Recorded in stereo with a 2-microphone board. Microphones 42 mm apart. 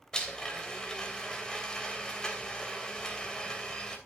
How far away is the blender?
About 3 m.